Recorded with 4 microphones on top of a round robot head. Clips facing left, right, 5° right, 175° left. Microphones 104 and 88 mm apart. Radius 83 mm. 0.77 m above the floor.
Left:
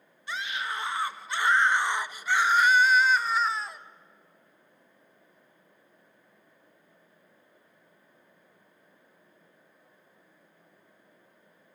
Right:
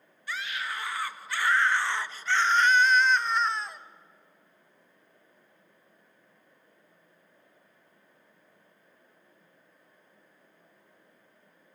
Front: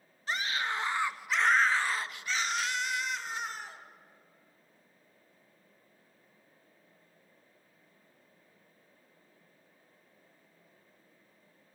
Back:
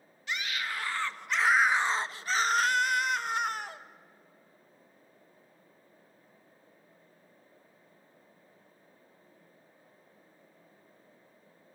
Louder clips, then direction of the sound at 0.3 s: Left 2 dB, front 2 dB; 25° left.